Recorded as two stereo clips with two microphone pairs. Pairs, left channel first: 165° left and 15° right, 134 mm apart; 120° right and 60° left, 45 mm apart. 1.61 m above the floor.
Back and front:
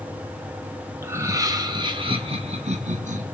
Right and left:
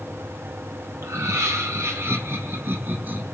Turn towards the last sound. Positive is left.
turn(degrees=10)